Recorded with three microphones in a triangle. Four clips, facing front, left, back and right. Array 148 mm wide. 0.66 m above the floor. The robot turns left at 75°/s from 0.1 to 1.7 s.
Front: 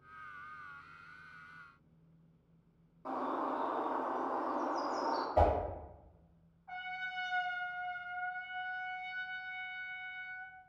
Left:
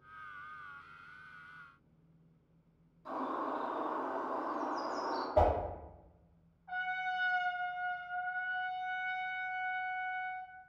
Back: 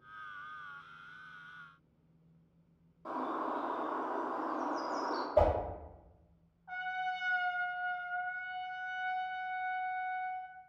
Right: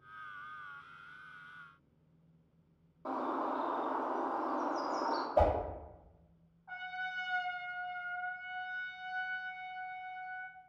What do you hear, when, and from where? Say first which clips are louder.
3.0 s a bird: right 2 dB, even; 90° right, 0.6 m
5.3 s a whoosh: left 1 dB, back 2 dB; 75° left, 1.2 m
6.7 s a trumpet: left 5 dB, back 6 dB; 145° right, 1.2 m